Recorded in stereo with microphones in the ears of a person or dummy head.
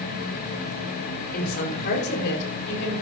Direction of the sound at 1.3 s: 50° left (ahead or behind).